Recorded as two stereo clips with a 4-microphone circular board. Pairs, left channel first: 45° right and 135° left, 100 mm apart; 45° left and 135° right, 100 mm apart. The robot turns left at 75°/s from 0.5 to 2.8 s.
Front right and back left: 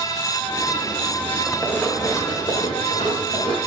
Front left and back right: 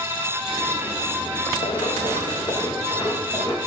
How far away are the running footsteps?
About 1.9 m.